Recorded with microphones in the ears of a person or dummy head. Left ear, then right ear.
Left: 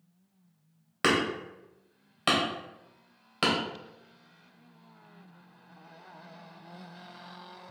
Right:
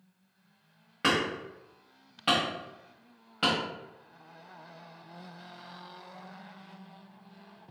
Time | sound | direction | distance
1.0 | hammering | 55° left (ahead or behind) | 1.4 m